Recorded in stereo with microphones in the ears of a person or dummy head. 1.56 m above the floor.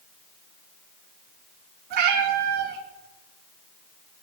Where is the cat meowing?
60° right (ahead or behind), 3 m.